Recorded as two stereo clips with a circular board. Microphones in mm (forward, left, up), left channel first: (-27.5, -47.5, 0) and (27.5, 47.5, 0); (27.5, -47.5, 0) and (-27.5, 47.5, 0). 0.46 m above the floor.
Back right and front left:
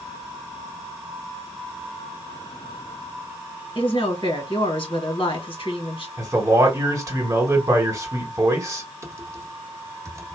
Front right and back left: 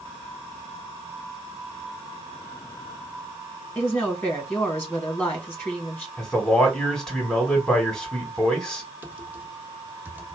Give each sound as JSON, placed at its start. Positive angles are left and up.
{"t": 3.8, "sound": "a woman speaking", "azimuth_deg": -130, "distance_m": 2.0}
{"t": 6.2, "sound": "a man speaking", "azimuth_deg": 20, "distance_m": 1.6}
{"t": 9.0, "sound": "typing on a keyboard", "azimuth_deg": 70, "distance_m": 0.8}